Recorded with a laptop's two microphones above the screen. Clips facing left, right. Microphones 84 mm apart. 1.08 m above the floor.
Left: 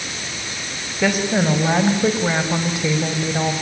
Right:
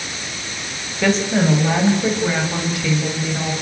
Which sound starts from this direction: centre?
A woman speaking, at 1.0 s.